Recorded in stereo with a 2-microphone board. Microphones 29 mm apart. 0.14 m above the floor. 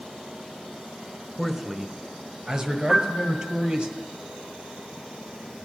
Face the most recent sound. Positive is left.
turn(degrees=-25)  # may be behind; listen again after turning